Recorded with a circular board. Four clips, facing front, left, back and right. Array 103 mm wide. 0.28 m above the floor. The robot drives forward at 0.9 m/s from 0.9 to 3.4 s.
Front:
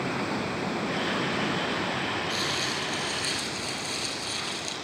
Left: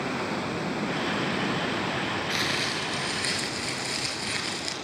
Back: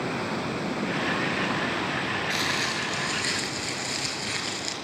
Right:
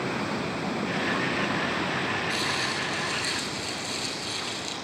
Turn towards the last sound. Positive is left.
turn(degrees=130)